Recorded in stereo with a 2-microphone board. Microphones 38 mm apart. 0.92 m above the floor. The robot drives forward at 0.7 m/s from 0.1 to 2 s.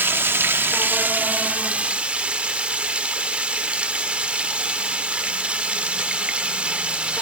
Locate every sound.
0.0 s running water: 70° right (ahead or behind), 0.8 m; by 7.2 s 35° right (ahead or behind), 1.4 m